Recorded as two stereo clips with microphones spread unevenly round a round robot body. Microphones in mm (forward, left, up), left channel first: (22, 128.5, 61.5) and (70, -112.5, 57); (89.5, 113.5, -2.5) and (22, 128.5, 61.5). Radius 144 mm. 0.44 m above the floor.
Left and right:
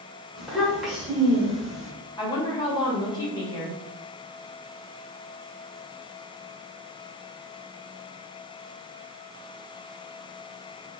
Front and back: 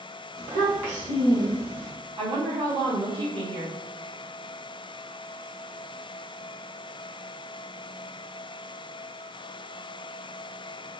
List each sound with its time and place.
0.4 s a child speaking: 170° right, 1.0 m
2.2 s a woman speaking: 165° left, 1.3 m